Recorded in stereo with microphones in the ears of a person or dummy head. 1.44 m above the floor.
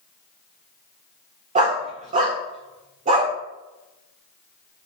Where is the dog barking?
35° right (ahead or behind), 1.7 m.